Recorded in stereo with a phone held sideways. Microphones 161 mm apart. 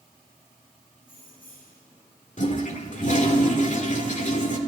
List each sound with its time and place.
1.0 s keys jangling: 60° left (ahead or behind), 7.5 m
2.4 s a toilet flushing: 50° left (ahead or behind), 1.9 m